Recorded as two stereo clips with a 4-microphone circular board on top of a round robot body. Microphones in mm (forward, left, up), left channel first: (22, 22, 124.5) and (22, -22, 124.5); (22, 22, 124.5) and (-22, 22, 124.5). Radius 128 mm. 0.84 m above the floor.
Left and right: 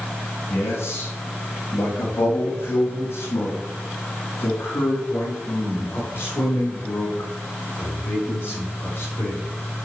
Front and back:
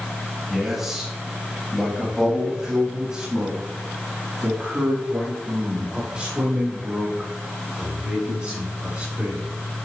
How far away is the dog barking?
I don't hear a dog barking.